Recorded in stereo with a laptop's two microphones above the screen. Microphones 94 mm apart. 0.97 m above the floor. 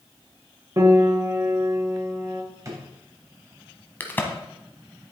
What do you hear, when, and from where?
0.8 s a piano: 30° right (ahead or behind), 2 m
2.6 s a drawer: 35° right (ahead or behind), 3.5 m
4.0 s a crack: 20° left (ahead or behind), 1.3 m